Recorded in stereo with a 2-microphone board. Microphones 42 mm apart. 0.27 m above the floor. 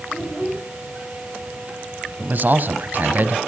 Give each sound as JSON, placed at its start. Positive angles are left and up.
{"t": 0.1, "sound": "a child speaking", "side_deg": 20, "distance_m": 8.0}
{"t": 2.2, "sound": "a man speaking", "side_deg": -45, "distance_m": 1.5}